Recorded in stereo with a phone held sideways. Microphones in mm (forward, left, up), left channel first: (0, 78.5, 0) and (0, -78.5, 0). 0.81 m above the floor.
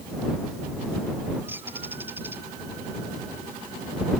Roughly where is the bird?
Centre.